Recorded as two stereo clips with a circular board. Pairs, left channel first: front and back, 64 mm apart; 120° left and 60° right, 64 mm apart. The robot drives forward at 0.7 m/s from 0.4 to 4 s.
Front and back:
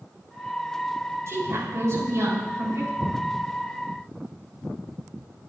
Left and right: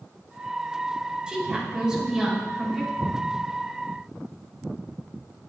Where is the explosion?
85° right, 3 m; by 3.4 s 90° right, 3 m.